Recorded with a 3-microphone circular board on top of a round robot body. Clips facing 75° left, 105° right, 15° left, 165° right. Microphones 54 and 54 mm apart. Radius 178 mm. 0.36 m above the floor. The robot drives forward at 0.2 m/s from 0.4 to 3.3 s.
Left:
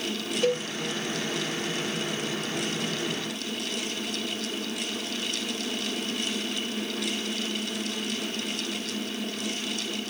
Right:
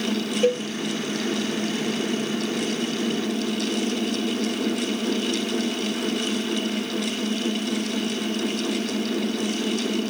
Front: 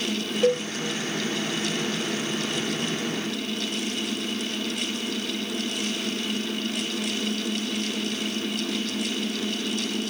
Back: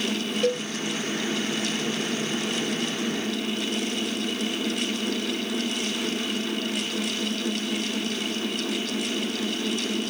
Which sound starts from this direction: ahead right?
A cowbell, at 0.4 s.